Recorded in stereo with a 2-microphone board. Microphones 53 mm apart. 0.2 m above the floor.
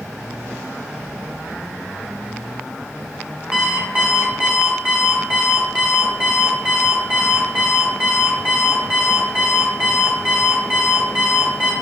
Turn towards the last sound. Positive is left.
turn(degrees=-25)  # may be behind; listen again after turning